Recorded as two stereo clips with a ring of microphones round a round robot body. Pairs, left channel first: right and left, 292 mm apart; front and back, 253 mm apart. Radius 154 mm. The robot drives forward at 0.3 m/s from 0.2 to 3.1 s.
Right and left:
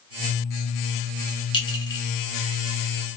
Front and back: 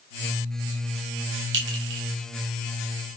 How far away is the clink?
About 0.9 m.